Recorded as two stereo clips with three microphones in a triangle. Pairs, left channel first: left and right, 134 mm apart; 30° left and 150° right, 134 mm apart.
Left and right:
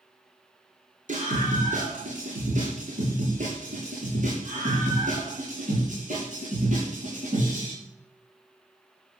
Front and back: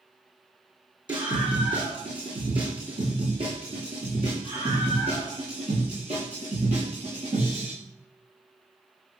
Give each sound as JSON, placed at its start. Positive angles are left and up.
{"t": 1.1, "sound": "a scream", "azimuth_deg": -95, "distance_m": 5.0}